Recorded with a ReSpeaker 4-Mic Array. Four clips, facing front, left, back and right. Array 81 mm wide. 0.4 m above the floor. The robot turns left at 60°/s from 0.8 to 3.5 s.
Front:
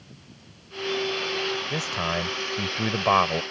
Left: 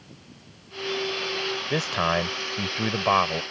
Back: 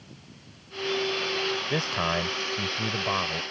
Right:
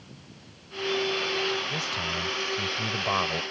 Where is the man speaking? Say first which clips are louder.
Left 8 dB, back 1 dB; 115° left; by 3.4 s 15° left.